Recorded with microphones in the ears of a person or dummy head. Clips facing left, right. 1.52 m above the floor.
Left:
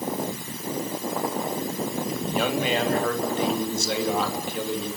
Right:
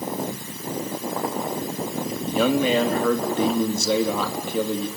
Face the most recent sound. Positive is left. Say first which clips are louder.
# right 6 dB
turn(degrees=-85)